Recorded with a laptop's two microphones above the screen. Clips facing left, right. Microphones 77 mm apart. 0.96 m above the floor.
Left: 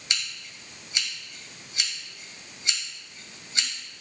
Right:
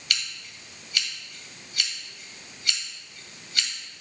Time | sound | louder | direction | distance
0.1 | scissors | right 1 dB | 20° left (ahead or behind) | 2 m